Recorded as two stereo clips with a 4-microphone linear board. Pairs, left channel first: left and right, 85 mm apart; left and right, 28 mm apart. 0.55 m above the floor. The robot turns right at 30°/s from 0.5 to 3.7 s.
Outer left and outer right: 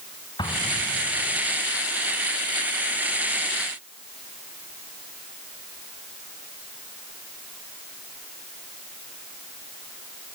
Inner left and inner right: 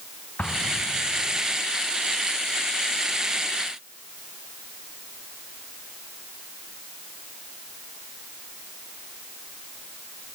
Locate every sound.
0.4 s an explosion: 60° left (ahead or behind), 4.5 m; by 1.5 s 35° left (ahead or behind), 4.5 m